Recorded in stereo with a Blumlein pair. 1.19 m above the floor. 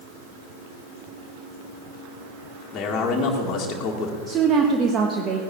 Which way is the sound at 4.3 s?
25° right.